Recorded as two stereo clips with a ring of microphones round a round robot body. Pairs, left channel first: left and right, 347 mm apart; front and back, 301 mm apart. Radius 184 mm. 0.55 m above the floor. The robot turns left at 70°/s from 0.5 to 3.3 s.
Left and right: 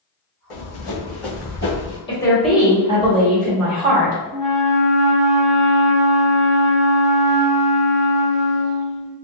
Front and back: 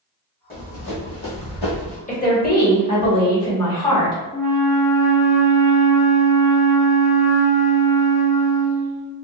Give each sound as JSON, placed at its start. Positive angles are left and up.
{"t": 0.5, "sound": "running footsteps", "azimuth_deg": 60, "distance_m": 1.7}
{"t": 2.1, "sound": "a woman speaking", "azimuth_deg": 30, "distance_m": 1.2}
{"t": 4.3, "sound": "a flute", "azimuth_deg": -85, "distance_m": 1.1}